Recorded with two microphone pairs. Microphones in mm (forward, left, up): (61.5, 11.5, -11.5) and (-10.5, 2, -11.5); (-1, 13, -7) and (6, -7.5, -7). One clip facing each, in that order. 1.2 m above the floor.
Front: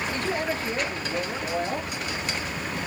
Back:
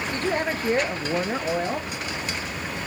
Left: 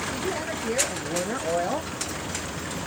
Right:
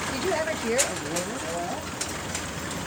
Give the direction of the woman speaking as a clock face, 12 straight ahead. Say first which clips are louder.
Back 5 dB, right 3 dB; 4 o'clock.